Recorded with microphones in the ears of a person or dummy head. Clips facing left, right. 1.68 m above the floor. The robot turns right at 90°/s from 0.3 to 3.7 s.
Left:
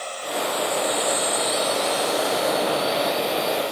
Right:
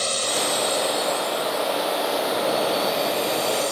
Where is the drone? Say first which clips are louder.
Right 2 dB; 60° right; by 3.7 s 115° right.